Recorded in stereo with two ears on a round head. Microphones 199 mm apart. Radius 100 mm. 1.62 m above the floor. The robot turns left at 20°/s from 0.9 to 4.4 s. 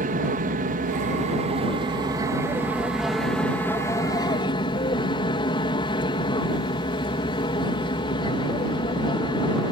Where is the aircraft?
135° right; by 9.7 s 155° left.